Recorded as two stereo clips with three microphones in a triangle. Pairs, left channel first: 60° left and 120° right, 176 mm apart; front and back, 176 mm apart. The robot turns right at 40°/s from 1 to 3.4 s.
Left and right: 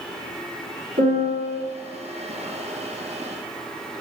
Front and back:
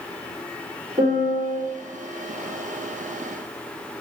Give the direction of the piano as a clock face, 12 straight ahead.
4 o'clock.